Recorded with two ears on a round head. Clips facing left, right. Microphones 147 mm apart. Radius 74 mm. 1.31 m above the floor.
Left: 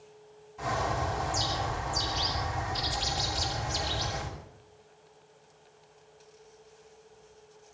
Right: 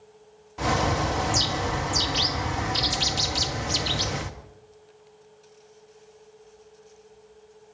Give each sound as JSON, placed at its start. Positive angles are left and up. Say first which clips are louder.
{"t": 0.6, "sound": "a bird", "louder": "right 6 dB", "side_deg": -80, "distance_m": 1.5}